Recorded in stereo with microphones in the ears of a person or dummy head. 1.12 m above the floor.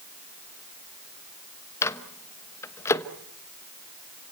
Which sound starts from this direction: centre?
A microwave, at 1.8 s.